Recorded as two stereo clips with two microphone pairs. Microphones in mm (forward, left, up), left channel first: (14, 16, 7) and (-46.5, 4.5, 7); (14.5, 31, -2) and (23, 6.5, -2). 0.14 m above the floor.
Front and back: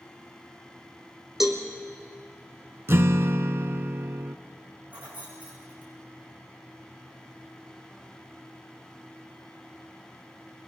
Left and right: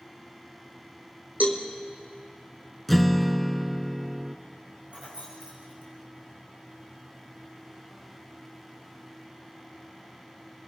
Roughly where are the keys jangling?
Right.